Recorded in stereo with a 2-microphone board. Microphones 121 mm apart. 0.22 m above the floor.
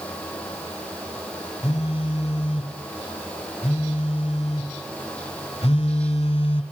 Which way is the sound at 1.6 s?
55° left (ahead or behind).